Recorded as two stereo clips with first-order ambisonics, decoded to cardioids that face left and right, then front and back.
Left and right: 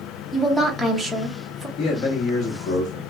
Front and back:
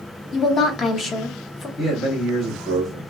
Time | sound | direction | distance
0.3 | a woman speaking | straight ahead | 0.6 m
1.8 | a man speaking | 65° left | 1.1 m